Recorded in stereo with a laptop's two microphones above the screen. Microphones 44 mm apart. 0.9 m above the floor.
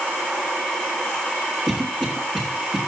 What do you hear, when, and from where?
1.7 s a cough: 15° right (ahead or behind), 2.5 m